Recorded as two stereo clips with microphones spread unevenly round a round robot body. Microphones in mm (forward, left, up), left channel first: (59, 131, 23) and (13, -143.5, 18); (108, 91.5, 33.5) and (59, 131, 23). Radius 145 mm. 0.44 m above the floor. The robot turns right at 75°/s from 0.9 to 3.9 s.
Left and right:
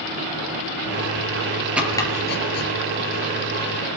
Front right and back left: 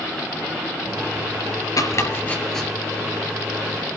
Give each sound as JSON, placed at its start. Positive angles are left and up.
{"t": 1.8, "sound": "chopping", "azimuth_deg": -15, "distance_m": 5.0}